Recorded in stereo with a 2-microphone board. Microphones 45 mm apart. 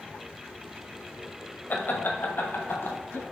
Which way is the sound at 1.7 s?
45° left (ahead or behind).